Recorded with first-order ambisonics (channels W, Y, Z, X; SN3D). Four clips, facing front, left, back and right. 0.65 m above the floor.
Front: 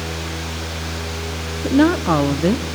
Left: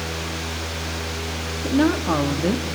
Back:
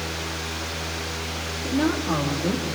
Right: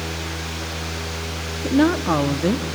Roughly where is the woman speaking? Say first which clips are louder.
Right 2 dB, front 9 dB; ahead.